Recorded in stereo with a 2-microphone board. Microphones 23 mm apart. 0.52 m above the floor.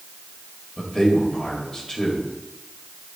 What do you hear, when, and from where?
0.8 s a man speaking: 20° left (ahead or behind), 2 m